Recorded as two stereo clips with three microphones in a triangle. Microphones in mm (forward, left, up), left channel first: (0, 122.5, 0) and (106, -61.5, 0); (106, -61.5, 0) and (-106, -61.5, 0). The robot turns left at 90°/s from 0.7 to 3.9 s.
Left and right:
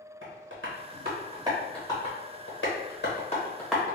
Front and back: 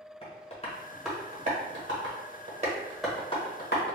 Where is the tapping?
60° right, 1.1 m; by 4.0 s 10° left, 1.1 m.